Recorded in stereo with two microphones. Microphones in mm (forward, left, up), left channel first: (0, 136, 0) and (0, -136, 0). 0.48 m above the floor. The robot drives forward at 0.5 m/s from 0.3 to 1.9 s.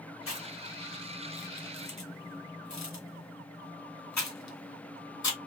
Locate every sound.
0.3 s chewing: 55° left (ahead or behind), 1.4 m; by 5.4 s 85° left, 1.1 m